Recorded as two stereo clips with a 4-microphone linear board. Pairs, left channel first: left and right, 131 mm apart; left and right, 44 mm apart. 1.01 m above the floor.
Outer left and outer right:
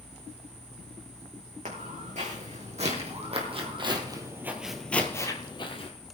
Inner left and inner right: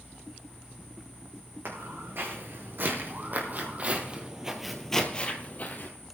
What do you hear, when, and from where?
1.6 s footsteps: 65° right (ahead or behind), 5 m; by 5.9 s 45° left (ahead or behind), 2.5 m